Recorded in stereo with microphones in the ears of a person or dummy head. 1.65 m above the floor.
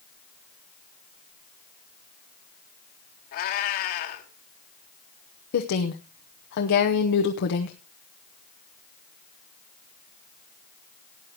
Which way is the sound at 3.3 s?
45° left (ahead or behind).